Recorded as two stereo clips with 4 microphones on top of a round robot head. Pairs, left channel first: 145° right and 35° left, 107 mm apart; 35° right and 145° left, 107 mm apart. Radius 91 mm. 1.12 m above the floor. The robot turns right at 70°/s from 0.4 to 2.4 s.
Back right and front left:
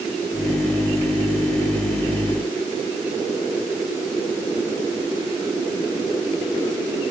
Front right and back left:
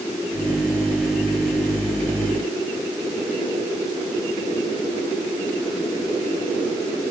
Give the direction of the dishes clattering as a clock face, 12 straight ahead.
I don't hear dishes clattering.